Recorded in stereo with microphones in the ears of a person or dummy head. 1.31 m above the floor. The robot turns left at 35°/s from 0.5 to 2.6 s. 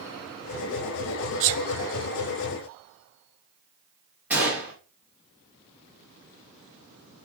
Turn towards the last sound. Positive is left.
turn(degrees=-5)  # may be behind; listen again after turning